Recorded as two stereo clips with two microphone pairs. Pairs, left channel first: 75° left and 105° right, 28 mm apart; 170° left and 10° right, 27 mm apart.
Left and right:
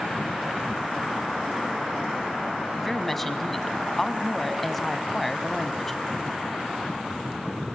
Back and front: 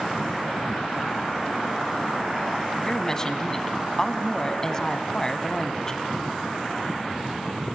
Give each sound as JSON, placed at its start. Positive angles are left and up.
{"t": 2.8, "sound": "a woman speaking", "azimuth_deg": 150, "distance_m": 1.1}